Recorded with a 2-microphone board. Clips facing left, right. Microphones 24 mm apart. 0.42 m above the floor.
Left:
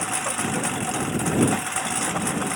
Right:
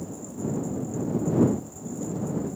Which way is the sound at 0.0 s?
80° left.